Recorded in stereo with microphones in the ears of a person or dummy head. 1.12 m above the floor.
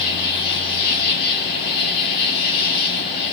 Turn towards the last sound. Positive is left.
turn(degrees=55)  # may be behind; listen again after turning